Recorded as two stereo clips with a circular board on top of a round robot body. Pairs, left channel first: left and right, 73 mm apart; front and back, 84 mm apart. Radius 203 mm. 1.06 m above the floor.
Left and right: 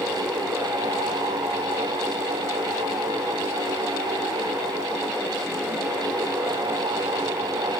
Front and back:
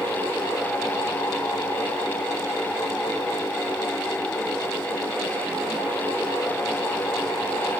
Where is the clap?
No clap in this recording.